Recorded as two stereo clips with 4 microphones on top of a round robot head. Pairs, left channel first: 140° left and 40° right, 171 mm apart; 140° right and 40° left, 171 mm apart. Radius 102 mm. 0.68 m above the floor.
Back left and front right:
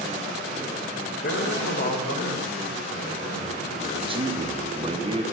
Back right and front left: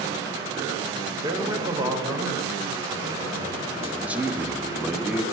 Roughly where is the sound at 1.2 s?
Left.